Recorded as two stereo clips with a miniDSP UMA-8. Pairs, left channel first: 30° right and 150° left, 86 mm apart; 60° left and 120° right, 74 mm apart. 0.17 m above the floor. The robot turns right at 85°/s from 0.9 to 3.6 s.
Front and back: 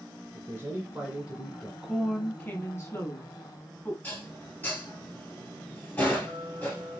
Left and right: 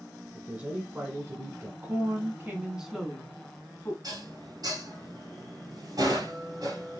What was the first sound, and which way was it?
A man speaking, straight behind.